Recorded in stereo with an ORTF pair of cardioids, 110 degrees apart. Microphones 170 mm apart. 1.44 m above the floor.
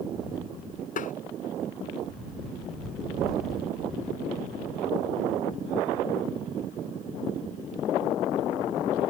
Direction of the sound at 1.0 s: 50° left.